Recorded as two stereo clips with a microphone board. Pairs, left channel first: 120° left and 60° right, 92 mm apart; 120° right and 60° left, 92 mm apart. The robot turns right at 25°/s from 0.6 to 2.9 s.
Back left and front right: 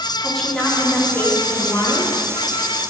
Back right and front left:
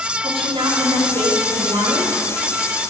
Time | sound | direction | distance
0.2 | a woman speaking | 35° left | 1.6 m